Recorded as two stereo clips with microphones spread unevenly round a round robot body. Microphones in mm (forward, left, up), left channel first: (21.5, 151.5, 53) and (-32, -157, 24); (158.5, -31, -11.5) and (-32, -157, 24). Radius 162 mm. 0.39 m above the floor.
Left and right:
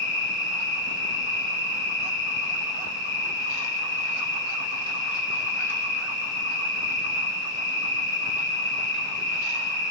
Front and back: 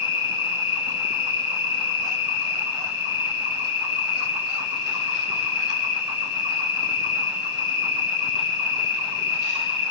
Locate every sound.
0.0 s an insect: 25° left, 1.4 m